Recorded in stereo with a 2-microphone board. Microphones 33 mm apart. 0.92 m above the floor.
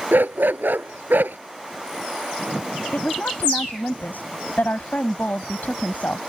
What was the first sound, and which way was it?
A dog barking, 80° right.